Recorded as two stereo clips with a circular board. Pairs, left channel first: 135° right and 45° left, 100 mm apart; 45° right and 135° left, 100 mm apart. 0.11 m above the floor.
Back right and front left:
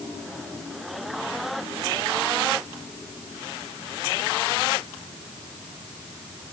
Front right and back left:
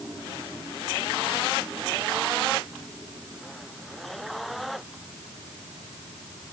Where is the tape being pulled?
No tape being pulled in this recording.